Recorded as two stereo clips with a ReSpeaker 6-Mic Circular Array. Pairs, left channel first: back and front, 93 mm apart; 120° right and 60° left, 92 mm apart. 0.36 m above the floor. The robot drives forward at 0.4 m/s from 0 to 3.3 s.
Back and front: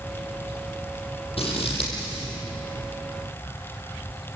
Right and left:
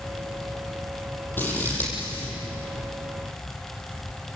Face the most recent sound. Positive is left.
turn(degrees=170)